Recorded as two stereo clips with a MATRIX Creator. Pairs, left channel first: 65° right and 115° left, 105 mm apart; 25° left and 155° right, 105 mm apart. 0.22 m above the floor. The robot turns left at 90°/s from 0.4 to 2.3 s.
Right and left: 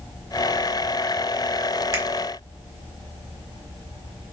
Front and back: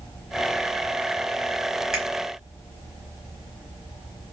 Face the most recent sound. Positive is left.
turn(degrees=90)